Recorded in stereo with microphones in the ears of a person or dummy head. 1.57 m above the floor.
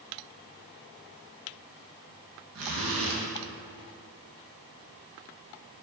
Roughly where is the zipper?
Right.